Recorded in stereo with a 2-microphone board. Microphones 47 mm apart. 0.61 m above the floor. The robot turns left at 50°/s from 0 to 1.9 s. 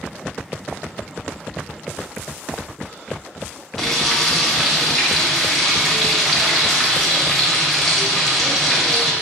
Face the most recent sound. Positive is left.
turn(degrees=5)  # may be behind; listen again after turning